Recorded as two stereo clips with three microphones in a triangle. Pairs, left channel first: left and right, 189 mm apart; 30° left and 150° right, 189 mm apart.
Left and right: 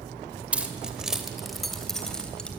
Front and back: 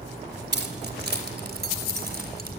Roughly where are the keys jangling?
Behind.